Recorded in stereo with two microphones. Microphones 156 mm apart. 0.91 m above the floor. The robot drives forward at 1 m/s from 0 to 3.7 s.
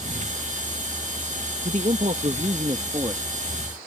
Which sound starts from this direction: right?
A man speaking, at 1.6 s.